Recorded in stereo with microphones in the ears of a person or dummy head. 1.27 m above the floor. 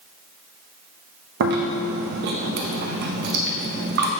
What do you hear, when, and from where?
1.4 s chewing: 60° right (ahead or behind), 0.7 m